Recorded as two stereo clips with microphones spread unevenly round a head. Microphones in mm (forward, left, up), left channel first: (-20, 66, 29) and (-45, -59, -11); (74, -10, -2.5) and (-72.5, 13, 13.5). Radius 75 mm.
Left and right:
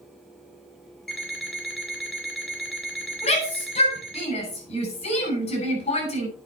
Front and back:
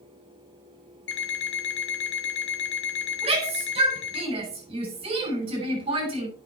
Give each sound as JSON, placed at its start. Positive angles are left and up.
{"t": 1.1, "sound": "an alarm clock", "azimuth_deg": -5, "distance_m": 2.5}
{"t": 3.2, "sound": "a shout", "azimuth_deg": 120, "distance_m": 8.0}